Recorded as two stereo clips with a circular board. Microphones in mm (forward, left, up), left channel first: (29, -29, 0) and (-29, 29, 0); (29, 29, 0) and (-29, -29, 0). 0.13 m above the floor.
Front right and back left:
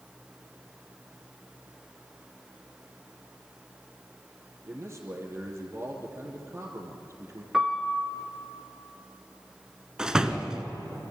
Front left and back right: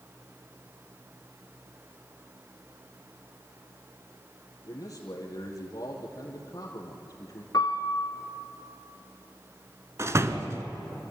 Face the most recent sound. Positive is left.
turn(degrees=-150)